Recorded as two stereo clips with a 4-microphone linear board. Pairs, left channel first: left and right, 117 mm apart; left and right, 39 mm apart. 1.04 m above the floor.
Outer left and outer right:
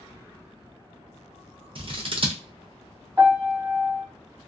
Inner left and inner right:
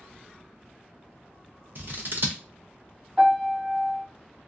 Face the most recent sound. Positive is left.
turn(degrees=-25)  # may be behind; listen again after turning